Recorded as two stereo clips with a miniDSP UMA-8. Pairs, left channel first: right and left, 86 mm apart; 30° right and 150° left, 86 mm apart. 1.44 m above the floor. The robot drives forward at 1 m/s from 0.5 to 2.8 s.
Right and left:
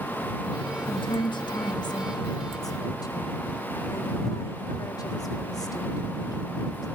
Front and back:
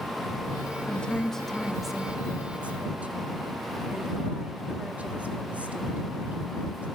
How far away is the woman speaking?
About 3 m.